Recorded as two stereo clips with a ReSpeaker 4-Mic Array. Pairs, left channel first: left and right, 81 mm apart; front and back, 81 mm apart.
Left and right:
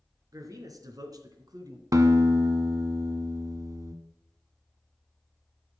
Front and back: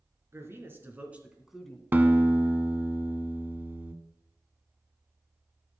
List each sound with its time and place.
0.3 s a man speaking: 125° right, 3.5 m; by 1.8 s 80° right, 1.9 m
1.9 s a guitar: 120° right, 1.2 m